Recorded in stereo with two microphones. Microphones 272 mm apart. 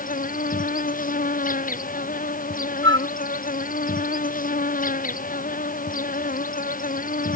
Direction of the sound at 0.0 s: 30° left (ahead or behind).